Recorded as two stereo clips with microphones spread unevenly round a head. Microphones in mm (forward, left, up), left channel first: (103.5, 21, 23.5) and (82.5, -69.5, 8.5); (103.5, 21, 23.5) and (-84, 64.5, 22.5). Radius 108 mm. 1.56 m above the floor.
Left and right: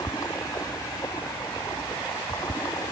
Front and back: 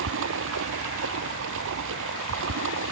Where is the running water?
150° left.